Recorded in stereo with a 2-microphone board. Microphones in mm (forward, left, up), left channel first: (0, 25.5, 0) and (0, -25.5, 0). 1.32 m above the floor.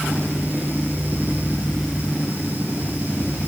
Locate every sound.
Only background noise.